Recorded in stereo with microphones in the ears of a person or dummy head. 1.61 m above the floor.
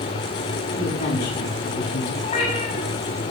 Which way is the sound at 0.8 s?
55° left (ahead or behind).